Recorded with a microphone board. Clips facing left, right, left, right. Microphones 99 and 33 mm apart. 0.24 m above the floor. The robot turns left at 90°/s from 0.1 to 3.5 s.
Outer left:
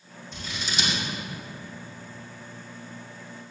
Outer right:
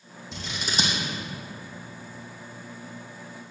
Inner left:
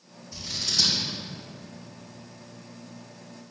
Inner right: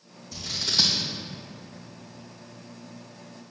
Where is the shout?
I don't hear a shout.